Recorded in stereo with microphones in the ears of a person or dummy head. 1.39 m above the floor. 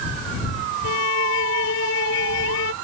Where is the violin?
70° left (ahead or behind).